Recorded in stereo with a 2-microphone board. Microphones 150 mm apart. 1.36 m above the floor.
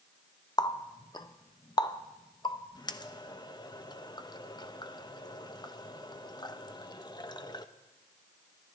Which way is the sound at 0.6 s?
30° left (ahead or behind).